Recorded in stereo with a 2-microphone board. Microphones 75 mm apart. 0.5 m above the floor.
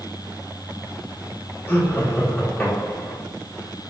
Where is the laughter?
25° left (ahead or behind), 1.5 m.